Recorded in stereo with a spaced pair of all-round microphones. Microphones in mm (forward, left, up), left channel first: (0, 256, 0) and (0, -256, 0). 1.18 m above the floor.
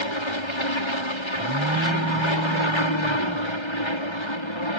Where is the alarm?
25° right (ahead or behind).